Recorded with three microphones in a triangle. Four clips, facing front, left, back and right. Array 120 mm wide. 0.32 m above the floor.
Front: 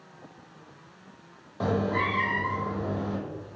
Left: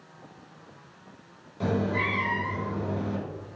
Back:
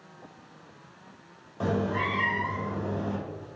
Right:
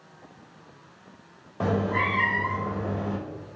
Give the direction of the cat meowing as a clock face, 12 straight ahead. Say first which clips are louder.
Right 2 dB, front 1 dB; 2 o'clock.